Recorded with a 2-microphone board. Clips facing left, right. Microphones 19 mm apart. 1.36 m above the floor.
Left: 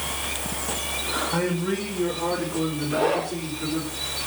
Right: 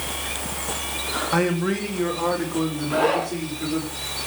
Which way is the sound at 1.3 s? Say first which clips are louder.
Right 6 dB; 60° right (ahead or behind).